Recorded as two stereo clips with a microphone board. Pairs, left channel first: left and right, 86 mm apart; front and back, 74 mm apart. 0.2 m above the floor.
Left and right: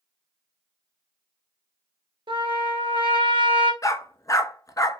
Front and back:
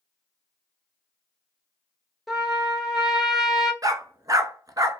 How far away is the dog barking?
About 0.6 m.